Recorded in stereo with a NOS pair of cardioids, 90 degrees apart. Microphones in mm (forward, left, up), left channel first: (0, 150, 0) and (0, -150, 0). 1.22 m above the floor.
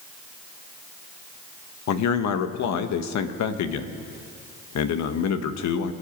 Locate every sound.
1.9 s a man speaking: 65° left, 1.2 m